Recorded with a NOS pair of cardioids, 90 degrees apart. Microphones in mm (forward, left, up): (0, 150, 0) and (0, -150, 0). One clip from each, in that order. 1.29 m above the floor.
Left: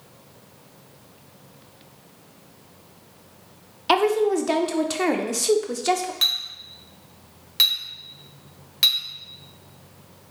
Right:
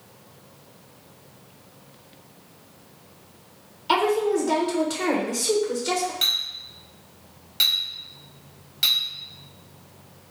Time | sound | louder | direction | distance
3.9 | a woman speaking | left 2 dB | 35° left | 0.6 m
6.2 | a clink | left 2 dB | 25° left | 0.8 m